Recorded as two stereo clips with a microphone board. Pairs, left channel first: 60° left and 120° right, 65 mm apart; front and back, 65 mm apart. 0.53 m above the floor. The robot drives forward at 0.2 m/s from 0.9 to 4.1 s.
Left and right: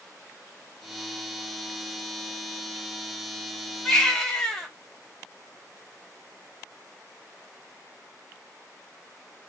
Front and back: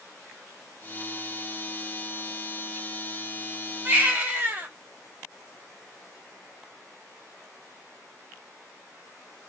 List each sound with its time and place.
3.9 s a baby crying: 135° left, 0.9 m; by 4.7 s 140° left, 0.9 m